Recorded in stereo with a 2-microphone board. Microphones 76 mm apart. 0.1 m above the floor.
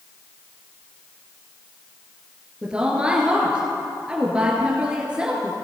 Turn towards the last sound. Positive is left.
turn(degrees=-15)  # may be behind; listen again after turning